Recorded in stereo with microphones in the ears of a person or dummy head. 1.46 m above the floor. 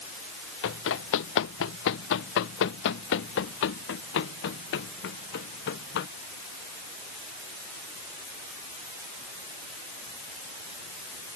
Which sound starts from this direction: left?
Running footsteps, at 0.6 s.